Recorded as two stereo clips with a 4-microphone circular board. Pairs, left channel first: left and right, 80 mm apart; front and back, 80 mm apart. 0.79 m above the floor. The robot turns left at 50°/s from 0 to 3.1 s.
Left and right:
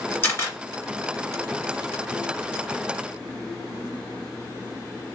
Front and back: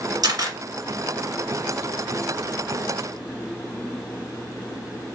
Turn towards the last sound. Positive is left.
turn(degrees=5)